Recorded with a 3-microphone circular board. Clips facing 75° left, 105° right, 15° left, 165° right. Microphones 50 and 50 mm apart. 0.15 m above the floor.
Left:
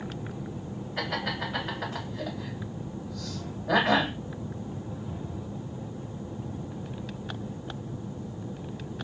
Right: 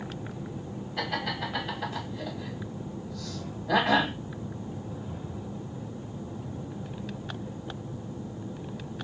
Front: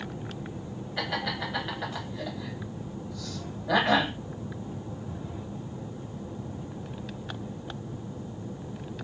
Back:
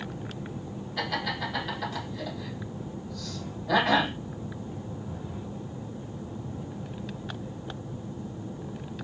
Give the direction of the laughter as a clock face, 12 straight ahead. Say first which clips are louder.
Even, back 1 dB; 9 o'clock.